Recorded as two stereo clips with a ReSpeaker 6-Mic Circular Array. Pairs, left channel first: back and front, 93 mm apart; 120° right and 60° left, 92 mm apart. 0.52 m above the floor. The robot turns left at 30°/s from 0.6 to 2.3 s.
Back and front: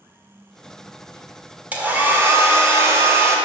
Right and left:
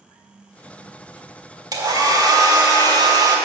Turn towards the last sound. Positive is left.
turn(degrees=50)